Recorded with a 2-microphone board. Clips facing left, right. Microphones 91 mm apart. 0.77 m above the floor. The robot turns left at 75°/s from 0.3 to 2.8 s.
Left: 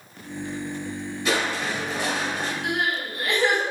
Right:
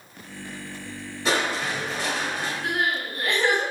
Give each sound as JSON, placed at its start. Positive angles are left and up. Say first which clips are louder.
{"t": 1.2, "sound": "crushing", "louder": "right 1 dB", "azimuth_deg": -145, "distance_m": 1.1}
{"t": 2.6, "sound": "crying", "louder": "right 1 dB", "side_deg": -40, "distance_m": 2.0}